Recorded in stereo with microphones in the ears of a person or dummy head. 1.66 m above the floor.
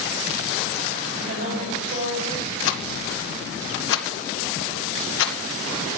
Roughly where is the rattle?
Left.